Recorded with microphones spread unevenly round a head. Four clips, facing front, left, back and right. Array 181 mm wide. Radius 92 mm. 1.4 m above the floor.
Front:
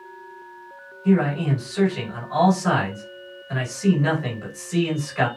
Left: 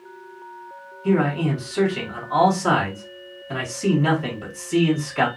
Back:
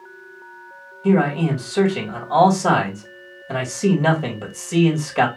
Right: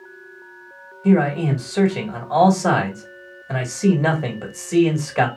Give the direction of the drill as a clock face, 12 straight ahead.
I don't hear a drill.